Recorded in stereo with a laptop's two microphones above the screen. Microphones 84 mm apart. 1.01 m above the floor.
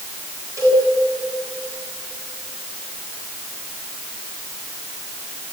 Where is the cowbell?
40° right (ahead or behind), 7 m.